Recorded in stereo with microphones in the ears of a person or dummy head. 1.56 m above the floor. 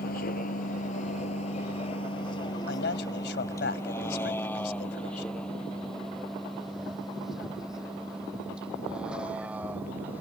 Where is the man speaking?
65° left (ahead or behind).